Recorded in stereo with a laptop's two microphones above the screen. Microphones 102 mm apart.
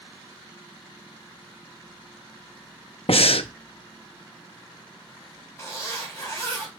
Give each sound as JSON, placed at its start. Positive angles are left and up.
{"t": 3.1, "sound": "breathing", "side_deg": 65, "distance_m": 0.6}
{"t": 5.6, "sound": "a zipper", "side_deg": 25, "distance_m": 4.0}